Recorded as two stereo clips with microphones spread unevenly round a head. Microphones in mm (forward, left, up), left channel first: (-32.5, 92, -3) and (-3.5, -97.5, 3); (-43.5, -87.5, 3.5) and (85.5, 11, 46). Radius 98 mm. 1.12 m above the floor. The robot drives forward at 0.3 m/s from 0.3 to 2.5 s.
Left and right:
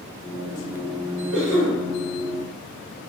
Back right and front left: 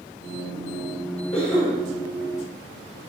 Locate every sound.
1.3 s a cough: 90° right, 1.8 m; by 1.8 s 95° right, 1.8 m